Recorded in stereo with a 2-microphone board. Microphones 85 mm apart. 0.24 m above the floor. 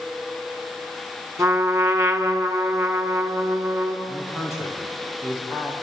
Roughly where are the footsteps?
No footsteps in this recording.